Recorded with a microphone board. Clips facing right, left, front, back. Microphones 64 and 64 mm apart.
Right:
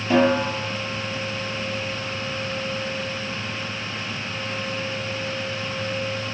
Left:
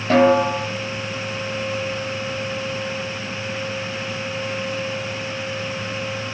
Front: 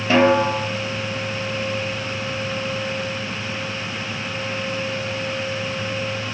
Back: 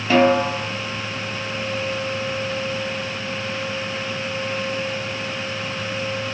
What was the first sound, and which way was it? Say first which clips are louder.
A snare drum: left 4 dB, even; 70° left.